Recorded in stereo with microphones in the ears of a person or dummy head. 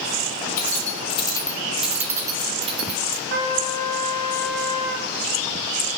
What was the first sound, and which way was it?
Keys jangling, 50° left (ahead or behind).